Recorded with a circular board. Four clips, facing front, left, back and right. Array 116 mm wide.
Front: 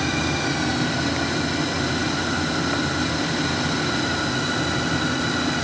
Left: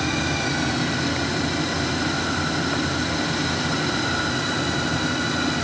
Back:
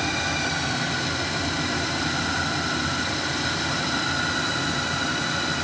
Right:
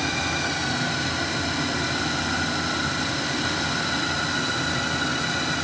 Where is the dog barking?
I don't hear a dog barking.